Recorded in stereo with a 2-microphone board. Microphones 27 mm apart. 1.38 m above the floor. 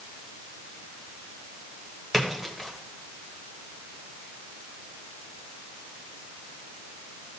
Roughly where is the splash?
Centre.